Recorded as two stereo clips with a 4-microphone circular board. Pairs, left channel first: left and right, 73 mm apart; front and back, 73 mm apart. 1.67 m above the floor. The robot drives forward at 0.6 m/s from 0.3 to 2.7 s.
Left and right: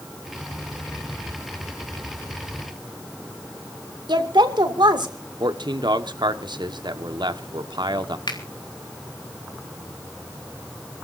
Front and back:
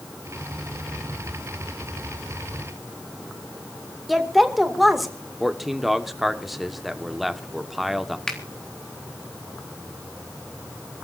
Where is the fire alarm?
I don't hear a fire alarm.